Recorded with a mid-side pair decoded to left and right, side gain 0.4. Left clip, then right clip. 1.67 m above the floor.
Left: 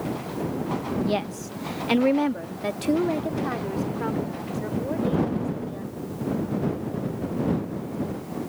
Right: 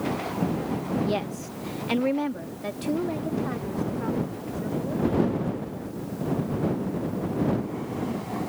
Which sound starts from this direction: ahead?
A woman speaking, at 1.0 s.